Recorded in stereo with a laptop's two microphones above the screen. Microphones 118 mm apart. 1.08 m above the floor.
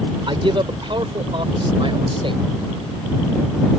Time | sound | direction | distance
0.3 | a man speaking | 45° right (ahead or behind) | ?